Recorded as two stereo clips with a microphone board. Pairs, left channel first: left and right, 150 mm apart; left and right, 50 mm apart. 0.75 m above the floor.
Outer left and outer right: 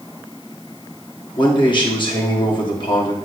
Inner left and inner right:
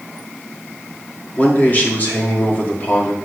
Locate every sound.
1.4 s a man speaking: 35° left (ahead or behind), 1.7 m